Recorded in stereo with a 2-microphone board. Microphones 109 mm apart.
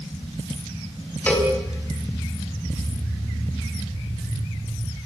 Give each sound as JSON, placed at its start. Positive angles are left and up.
{"t": 1.3, "sound": "a cowbell", "side_deg": 15, "distance_m": 4.0}